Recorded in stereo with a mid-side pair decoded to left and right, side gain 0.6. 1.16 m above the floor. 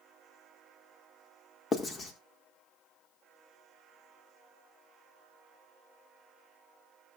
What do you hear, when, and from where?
1.7 s writing: 35° left, 2.0 m